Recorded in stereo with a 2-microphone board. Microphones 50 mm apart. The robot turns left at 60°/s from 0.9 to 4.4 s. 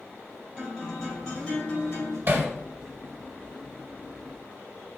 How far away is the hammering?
About 1.0 m.